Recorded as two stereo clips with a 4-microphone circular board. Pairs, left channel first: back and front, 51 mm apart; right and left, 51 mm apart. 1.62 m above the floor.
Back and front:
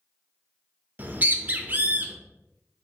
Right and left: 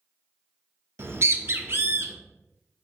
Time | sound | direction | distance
1.0 | a bird | 55° left | 0.6 m